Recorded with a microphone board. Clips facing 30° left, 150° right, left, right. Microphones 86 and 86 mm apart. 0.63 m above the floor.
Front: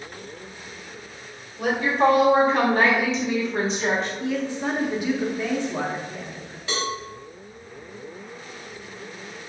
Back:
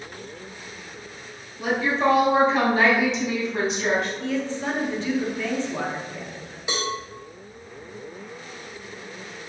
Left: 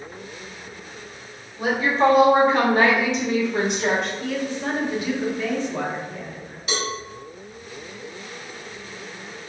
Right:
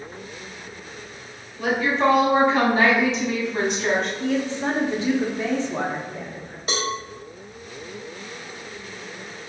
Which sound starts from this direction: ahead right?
A woman speaking, at 4.2 s.